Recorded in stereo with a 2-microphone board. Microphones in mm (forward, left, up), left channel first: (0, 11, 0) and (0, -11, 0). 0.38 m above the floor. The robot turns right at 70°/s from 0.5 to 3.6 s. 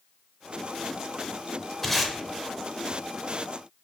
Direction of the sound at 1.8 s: 5° left (ahead or behind).